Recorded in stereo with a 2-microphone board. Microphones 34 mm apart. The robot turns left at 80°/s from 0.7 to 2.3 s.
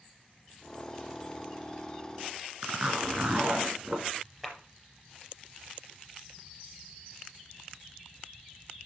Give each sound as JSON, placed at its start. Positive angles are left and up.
{"t": 2.6, "sound": "a zipper", "side_deg": -35, "distance_m": 2.5}
{"t": 4.4, "sound": "a clap", "side_deg": -5, "distance_m": 4.0}